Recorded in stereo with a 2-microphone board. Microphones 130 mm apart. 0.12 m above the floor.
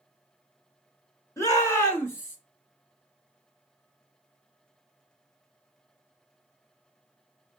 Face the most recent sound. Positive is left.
turn(degrees=15)  # may be behind; listen again after turning